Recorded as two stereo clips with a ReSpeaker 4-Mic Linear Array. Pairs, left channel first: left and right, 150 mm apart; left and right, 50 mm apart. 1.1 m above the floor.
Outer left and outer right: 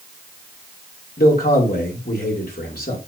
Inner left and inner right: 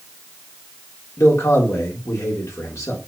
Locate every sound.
1.2 s a man speaking: 80° left, 3.5 m